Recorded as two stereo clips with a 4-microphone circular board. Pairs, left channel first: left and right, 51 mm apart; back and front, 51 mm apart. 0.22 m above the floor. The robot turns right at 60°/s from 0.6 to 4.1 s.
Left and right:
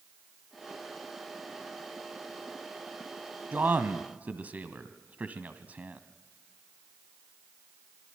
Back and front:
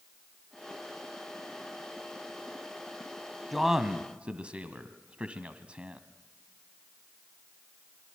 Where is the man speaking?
85° right, 1.5 m; by 6.0 s 50° right, 1.5 m.